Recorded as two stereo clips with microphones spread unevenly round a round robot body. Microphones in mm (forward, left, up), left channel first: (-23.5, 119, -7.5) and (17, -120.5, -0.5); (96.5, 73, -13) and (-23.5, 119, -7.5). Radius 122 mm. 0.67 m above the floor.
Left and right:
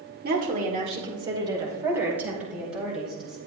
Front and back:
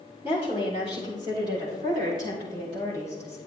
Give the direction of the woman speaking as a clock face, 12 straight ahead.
4 o'clock.